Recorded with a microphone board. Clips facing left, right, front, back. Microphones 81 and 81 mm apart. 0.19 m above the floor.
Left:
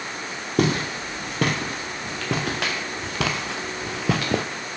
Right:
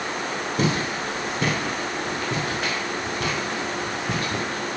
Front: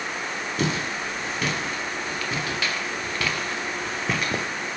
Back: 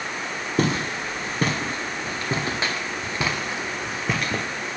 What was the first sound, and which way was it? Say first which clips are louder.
Footsteps: left 3 dB, back 4 dB; 130° left.